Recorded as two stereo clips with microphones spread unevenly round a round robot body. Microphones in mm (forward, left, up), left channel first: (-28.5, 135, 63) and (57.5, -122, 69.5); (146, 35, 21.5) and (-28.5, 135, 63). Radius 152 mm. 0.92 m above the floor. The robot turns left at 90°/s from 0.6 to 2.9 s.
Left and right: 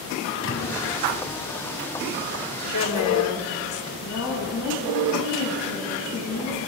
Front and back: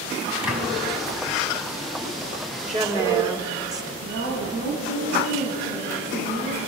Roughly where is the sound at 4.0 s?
Behind left.